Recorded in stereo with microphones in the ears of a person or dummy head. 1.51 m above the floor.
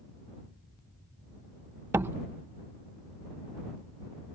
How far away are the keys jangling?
No keys jangling in this recording.